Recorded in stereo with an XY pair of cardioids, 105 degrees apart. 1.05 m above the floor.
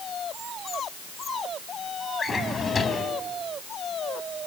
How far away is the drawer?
About 4 m.